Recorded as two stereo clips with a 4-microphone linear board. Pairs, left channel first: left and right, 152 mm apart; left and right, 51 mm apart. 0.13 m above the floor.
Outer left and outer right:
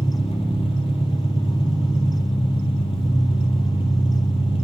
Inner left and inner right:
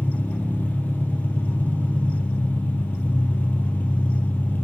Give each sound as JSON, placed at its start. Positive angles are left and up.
{"t": 0.0, "sound": "an engine running", "side_deg": 40, "distance_m": 1.4}